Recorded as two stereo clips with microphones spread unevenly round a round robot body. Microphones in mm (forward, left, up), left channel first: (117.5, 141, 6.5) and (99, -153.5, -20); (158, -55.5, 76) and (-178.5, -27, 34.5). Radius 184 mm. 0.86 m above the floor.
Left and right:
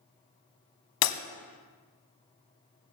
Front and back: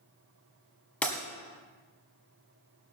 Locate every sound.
1.0 s breaking glass: 75° left, 1.3 m